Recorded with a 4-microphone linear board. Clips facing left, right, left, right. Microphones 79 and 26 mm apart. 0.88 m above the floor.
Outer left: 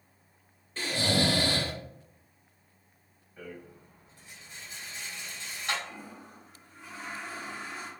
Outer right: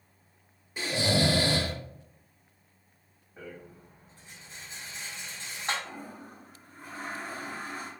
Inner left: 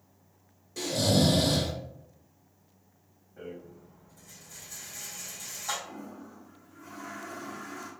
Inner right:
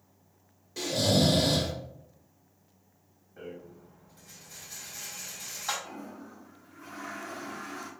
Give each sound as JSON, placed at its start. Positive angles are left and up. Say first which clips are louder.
{"t": 0.8, "sound": "snoring", "louder": "outer right 1 dB, even", "side_deg": -15, "distance_m": 1.4}
{"t": 3.4, "sound": "a rattle", "louder": "even, inner left 1 dB", "side_deg": -35, "distance_m": 2.0}
{"t": 5.8, "sound": "a toilet flushing", "louder": "outer right 2 dB, even", "side_deg": -45, "distance_m": 0.9}